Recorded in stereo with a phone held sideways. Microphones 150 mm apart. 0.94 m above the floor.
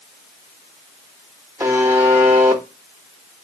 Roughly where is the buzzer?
Centre.